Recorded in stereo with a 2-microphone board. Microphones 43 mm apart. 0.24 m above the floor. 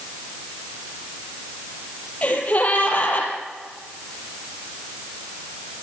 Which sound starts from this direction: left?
A gasp, at 2.2 s.